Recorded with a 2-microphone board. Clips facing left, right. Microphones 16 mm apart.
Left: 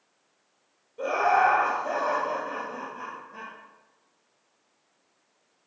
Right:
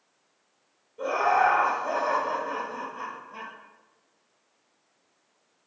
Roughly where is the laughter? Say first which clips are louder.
Left 1 dB; left.